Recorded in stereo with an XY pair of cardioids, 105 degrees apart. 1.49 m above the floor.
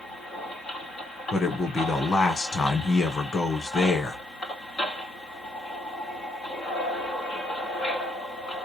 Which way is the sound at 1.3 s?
40° left.